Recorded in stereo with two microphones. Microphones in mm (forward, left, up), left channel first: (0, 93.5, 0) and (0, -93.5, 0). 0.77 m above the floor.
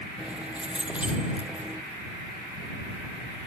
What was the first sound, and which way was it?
Keys jangling, 5° right (ahead or behind).